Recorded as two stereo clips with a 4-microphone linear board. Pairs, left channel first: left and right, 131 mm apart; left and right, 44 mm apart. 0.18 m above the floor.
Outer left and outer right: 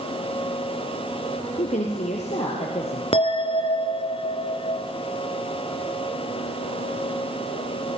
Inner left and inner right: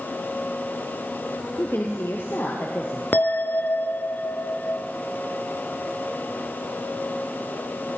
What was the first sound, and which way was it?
A woman speaking, 75° left (ahead or behind).